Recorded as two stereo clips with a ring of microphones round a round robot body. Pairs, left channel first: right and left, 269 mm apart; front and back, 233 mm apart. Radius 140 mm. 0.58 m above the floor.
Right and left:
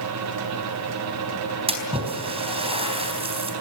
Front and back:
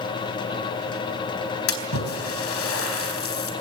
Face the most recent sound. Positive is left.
turn(degrees=20)